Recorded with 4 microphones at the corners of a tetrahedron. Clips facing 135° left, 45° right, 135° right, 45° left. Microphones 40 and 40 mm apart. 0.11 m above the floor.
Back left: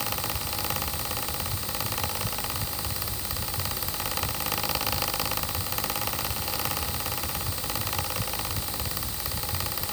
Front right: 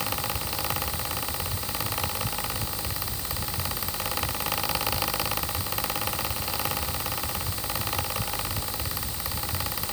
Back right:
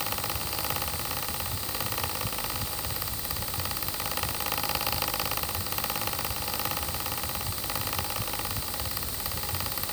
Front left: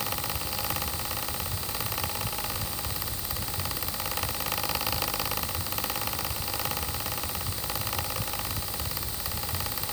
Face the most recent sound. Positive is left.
No sound to turn to.